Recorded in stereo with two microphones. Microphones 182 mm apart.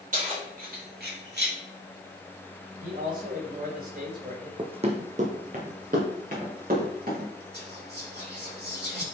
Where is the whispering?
65° right (ahead or behind), 3.5 m.